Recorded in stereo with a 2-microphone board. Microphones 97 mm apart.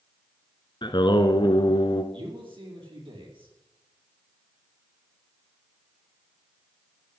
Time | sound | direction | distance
0.8 | singing | 55° left (ahead or behind) | 1.0 m
2.1 | a man speaking | 65° right (ahead or behind) | 4.5 m